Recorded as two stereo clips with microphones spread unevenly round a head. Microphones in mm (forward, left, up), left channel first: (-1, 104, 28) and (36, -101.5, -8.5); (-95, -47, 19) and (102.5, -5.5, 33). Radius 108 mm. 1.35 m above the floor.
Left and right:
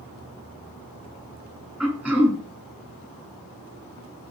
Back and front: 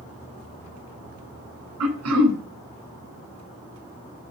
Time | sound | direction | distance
1.8 | throat clearing | 5° left | 4.5 m